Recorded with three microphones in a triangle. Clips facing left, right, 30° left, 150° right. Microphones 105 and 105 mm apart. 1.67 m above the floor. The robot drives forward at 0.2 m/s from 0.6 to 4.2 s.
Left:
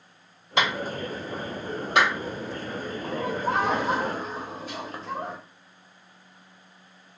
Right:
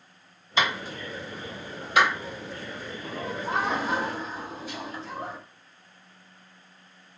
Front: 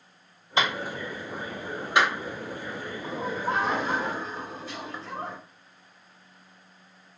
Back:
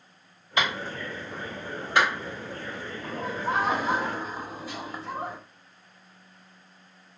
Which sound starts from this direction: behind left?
Laughter, at 3.0 s.